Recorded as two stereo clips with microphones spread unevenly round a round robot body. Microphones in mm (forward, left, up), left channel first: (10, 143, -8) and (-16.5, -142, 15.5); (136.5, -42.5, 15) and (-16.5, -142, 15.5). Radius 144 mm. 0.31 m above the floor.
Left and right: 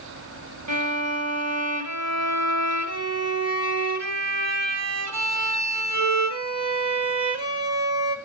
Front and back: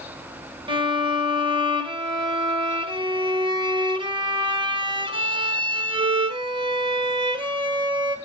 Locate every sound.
0.7 s a violin: 95° right, 2 m